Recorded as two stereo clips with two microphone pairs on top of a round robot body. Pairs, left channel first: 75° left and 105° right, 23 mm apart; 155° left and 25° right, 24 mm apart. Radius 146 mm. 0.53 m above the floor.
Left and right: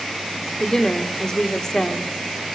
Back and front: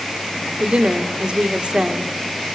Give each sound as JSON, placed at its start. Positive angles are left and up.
{"t": 0.6, "sound": "a woman speaking", "azimuth_deg": 5, "distance_m": 2.5}